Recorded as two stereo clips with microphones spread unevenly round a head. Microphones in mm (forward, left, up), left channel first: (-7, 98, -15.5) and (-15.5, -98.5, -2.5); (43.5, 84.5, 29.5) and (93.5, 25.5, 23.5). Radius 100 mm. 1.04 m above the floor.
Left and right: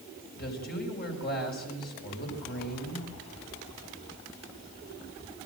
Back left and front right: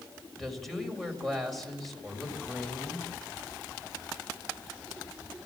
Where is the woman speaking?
40° left, 5 m.